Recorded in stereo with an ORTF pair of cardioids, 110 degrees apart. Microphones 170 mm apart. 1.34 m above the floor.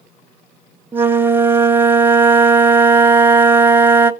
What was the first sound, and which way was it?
A flute, 10° right.